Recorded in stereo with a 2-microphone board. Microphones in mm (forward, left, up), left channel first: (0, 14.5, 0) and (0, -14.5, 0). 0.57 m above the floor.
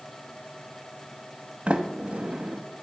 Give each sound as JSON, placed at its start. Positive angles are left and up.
{"t": 1.7, "sound": "a sliding door", "side_deg": -50, "distance_m": 0.8}